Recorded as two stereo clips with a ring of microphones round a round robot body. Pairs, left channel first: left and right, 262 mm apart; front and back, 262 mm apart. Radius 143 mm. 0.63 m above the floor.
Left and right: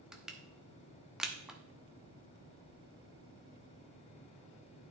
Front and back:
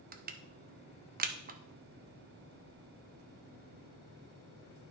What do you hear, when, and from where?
0.1 s crushing: 175° right, 0.7 m